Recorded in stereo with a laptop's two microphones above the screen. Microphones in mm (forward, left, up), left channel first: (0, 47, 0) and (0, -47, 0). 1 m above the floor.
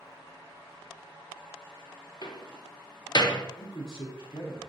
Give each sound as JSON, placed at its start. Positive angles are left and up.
{"t": 2.2, "sound": "a door slam", "side_deg": 50, "distance_m": 0.5}
{"t": 3.6, "sound": "a man speaking", "side_deg": 50, "distance_m": 0.8}